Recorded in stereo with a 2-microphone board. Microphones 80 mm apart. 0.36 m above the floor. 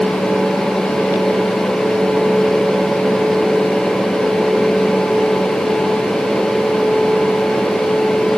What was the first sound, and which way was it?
Only background noise.